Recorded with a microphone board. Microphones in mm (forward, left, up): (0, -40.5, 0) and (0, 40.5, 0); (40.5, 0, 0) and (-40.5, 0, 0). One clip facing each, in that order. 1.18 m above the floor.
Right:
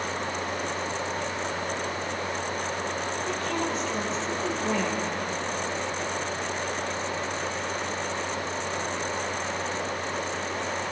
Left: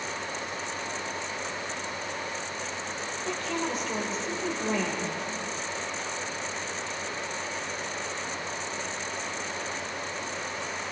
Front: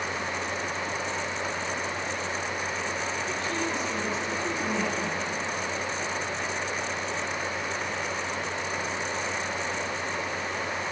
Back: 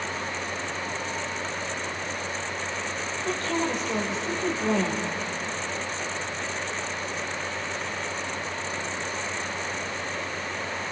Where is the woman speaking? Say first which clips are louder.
Even, back 3 dB; straight behind, 6 m.